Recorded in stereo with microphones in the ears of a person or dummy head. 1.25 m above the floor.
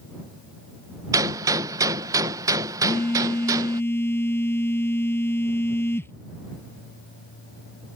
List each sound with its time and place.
1.1 s a gunshot: 20° right (ahead or behind)
2.8 s a phone buzzing: 10° left (ahead or behind)